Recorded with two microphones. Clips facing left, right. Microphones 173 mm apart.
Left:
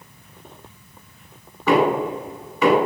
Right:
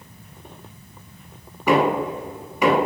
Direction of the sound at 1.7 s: 15° right (ahead or behind).